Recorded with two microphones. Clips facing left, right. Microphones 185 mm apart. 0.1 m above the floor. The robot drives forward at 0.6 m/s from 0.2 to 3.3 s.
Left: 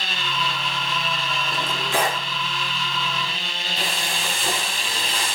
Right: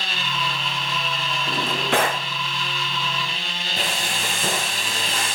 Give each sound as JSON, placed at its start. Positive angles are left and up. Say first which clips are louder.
{"t": 1.5, "sound": "a drawer", "louder": "right 6 dB", "side_deg": -65, "distance_m": 6.0}
{"t": 3.8, "sound": "frying", "louder": "right 2 dB", "side_deg": -55, "distance_m": 10.0}